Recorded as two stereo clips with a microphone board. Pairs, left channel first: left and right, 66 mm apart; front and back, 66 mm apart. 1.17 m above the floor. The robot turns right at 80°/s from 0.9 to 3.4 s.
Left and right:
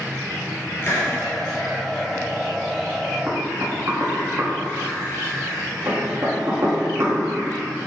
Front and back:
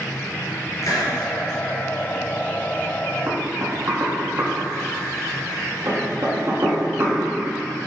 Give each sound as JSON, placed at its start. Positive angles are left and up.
{"t": 0.8, "sound": "a hiss", "azimuth_deg": 35, "distance_m": 3.5}
{"t": 3.3, "sound": "knocking", "azimuth_deg": -145, "distance_m": 2.0}